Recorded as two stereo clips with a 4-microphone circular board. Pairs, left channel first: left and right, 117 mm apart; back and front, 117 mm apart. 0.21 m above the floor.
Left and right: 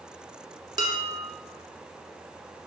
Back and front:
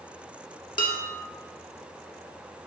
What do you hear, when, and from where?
0.8 s dishes clattering: 140° right, 1.6 m